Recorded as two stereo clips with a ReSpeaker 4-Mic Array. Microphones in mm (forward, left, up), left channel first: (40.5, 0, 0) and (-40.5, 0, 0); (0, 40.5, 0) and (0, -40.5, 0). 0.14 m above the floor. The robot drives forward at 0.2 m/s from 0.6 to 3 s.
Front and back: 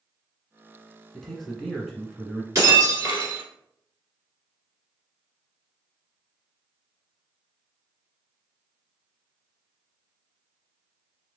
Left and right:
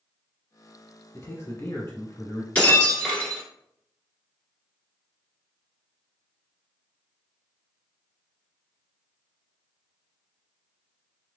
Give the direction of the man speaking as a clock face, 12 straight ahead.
9 o'clock.